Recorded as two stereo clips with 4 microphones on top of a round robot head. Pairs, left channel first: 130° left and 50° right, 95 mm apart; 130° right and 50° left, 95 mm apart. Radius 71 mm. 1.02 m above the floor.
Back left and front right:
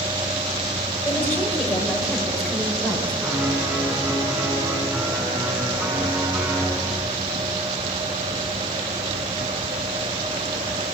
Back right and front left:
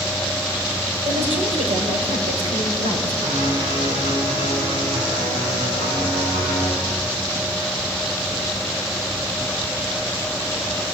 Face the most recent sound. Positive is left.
turn(degrees=25)